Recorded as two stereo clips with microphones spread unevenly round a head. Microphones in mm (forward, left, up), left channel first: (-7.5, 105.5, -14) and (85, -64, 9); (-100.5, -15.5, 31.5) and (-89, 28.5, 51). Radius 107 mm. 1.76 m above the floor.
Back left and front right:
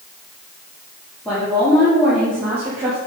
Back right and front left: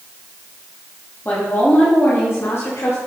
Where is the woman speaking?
150° right, 3.5 m; by 3.0 s 135° right, 2.5 m.